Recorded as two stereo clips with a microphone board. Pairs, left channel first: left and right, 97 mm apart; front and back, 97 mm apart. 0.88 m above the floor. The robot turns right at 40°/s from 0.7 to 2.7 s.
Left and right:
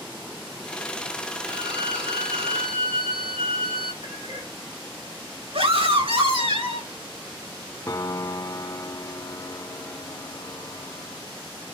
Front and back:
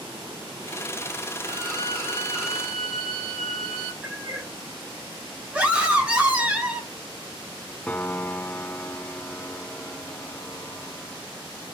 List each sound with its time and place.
1.4 s a violin: 140° right, 8 m; by 3.9 s 90° right, 8 m
4.0 s a cat meowing: 100° right, 7 m
5.5 s a scream: 100° right, 6.5 m
7.9 s a piano: 65° left, 0.5 m